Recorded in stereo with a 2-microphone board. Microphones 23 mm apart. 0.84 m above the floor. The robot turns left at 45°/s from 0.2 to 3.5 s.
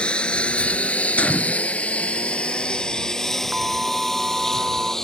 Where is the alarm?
40° right (ahead or behind).